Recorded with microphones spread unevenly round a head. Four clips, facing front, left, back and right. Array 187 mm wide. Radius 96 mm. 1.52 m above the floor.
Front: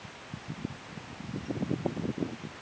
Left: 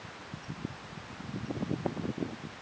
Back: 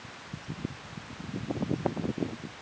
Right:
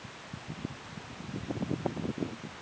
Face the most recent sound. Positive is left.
No sound to turn to.